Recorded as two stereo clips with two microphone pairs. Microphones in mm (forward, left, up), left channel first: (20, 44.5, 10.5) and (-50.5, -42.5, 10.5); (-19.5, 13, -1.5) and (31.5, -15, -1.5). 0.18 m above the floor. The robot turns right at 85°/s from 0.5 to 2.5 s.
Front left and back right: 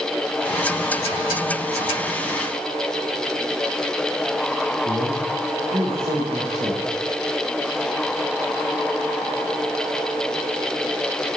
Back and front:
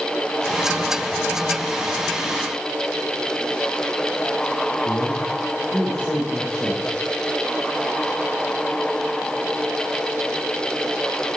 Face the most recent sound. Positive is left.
turn(degrees=-150)